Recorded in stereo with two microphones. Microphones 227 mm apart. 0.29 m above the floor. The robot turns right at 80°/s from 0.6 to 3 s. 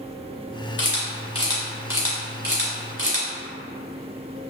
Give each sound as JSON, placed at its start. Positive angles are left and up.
{"t": 0.8, "sound": "a camera shutter", "side_deg": 60, "distance_m": 0.9}